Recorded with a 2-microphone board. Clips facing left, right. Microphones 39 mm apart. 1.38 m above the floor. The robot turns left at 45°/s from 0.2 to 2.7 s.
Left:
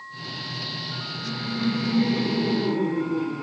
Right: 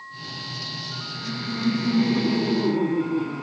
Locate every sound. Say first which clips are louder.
1.1 s laughter: right 1 dB; 60° right, 3.5 m; by 3.4 s 135° right, 3.5 m